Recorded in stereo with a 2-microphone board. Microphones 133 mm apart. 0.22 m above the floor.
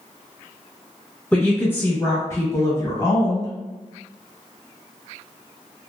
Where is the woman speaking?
15° left (ahead or behind), 1.2 m; by 3.5 s 25° left (ahead or behind), 1.5 m.